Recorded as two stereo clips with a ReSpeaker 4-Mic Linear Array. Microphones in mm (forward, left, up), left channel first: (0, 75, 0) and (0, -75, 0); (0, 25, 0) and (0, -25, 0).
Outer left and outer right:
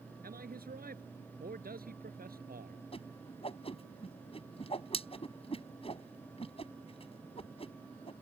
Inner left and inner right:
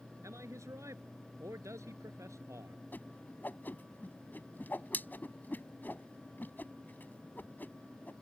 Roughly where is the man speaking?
Right.